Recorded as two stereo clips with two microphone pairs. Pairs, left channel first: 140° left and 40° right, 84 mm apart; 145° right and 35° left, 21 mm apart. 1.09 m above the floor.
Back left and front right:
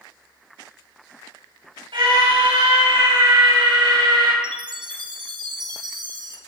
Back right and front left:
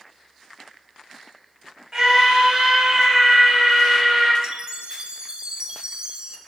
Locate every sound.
1.9 s a scream: 25° right, 7 m
4.4 s a chime: 10° right, 1.3 m